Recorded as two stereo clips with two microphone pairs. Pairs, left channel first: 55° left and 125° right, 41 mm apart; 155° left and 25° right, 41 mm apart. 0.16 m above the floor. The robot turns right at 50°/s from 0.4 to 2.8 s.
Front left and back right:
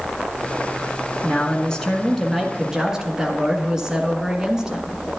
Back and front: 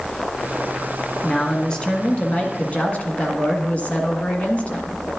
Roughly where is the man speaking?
Left.